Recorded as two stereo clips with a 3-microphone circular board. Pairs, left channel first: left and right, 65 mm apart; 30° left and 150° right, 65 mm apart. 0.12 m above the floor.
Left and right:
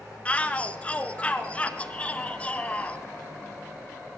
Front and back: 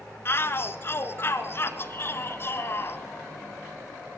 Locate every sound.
0.2 s a shout: 35° left, 1.4 m